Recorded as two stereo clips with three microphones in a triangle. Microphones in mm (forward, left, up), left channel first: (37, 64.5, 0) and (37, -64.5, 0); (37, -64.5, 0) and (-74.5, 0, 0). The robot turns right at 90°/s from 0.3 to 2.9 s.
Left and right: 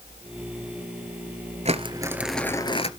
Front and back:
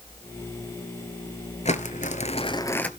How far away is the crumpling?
About 1.2 m.